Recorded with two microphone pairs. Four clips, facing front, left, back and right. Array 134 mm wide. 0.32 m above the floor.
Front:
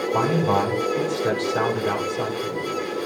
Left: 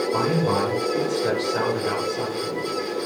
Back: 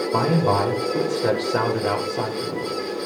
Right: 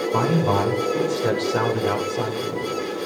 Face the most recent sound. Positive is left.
turn(degrees=-170)